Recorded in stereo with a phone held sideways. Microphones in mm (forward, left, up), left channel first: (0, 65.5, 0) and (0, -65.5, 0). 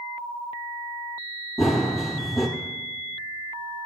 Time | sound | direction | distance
1.6 | running footsteps | centre (ahead or behind) | 1.5 m